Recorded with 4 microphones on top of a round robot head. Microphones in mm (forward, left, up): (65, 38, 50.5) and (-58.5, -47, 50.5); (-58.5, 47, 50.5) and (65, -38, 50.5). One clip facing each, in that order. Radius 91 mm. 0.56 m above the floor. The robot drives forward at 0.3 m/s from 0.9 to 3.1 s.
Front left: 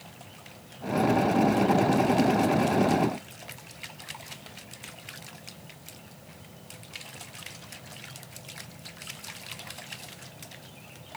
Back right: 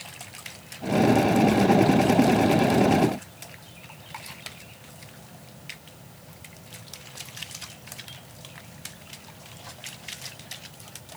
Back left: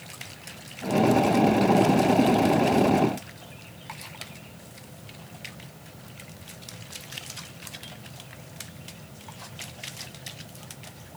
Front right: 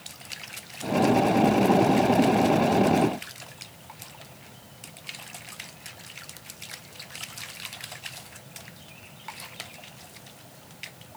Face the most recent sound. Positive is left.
No sound to turn to.